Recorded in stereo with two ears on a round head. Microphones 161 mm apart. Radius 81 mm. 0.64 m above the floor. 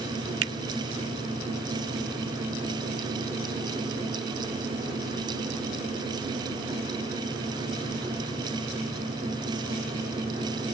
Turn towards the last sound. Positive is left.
turn(degrees=-75)  # may be behind; listen again after turning